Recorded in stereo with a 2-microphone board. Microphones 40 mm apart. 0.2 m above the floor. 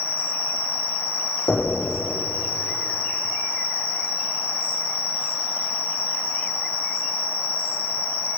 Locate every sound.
0.0 s an insect: 85° left, 7 m
1.5 s knocking: 65° left (ahead or behind), 6 m